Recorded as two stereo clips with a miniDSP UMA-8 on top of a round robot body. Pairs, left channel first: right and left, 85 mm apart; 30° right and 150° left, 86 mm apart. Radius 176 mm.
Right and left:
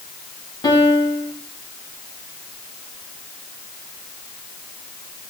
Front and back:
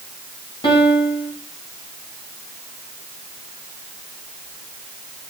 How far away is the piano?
About 6.5 m.